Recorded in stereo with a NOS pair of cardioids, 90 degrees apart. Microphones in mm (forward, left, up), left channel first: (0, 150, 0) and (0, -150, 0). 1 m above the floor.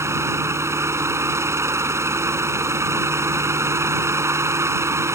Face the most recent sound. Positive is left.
turn(degrees=-10)